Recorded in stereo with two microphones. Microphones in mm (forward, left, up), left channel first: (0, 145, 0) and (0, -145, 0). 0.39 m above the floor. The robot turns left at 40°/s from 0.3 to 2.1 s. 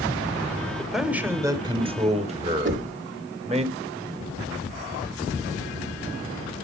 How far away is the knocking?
About 1.0 m.